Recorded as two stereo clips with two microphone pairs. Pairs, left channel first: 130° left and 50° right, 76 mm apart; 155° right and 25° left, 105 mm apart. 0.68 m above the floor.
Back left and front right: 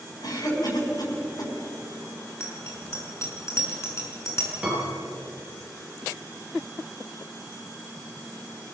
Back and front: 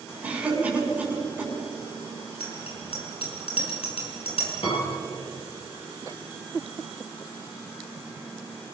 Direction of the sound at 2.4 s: Straight behind.